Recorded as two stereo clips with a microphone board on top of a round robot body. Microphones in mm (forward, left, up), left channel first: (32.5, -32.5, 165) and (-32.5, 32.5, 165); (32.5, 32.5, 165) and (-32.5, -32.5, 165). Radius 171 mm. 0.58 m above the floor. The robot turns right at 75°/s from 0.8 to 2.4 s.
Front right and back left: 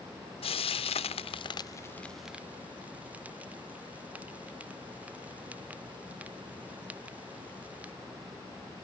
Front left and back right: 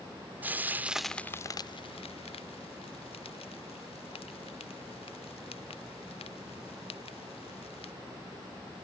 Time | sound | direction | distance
0.4 | frying | 60° right | ?